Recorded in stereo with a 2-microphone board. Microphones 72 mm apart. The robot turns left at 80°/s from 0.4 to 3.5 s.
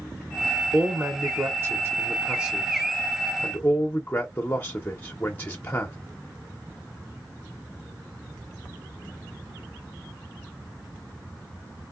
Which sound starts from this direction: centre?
A man speaking, at 0.7 s.